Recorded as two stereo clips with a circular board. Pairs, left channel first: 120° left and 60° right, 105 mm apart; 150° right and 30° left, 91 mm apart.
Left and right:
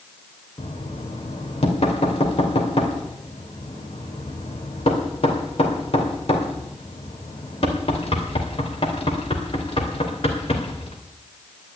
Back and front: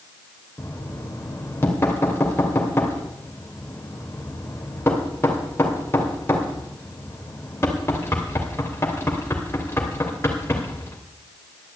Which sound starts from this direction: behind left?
Knocking, at 0.6 s.